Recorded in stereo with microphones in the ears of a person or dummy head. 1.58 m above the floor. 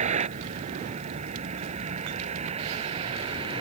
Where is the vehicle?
40° right (ahead or behind); by 3.6 s 35° right (ahead or behind).